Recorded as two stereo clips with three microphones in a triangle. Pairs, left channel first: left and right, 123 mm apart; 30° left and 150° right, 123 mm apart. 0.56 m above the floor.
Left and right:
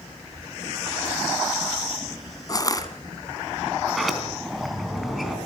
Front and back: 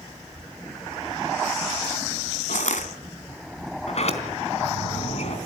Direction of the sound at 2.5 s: 30° left.